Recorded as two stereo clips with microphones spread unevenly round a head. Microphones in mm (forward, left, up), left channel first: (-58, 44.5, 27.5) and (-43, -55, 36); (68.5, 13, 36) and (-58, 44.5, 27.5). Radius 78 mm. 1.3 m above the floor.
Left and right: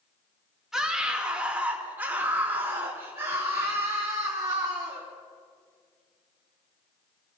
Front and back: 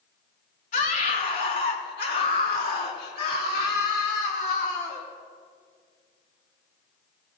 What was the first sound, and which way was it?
A scream, 5° left.